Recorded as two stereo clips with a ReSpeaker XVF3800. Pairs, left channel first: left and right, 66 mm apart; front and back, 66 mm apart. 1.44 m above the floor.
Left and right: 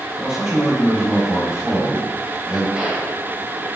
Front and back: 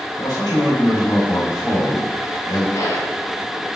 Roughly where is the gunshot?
Ahead.